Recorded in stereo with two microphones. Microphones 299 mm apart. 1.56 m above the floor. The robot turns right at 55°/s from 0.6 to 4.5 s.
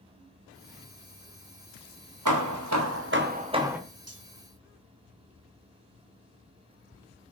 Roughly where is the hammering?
Right.